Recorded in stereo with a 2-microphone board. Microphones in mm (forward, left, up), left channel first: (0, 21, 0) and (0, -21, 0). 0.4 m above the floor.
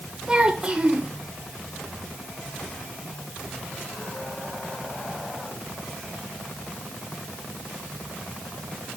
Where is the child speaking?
25° right (ahead or behind), 3 m.